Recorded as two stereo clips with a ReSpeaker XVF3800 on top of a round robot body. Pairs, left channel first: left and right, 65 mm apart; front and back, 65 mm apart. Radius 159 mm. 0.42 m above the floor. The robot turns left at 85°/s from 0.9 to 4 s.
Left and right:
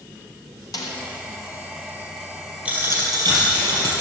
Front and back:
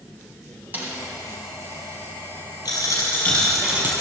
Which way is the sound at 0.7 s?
115° left.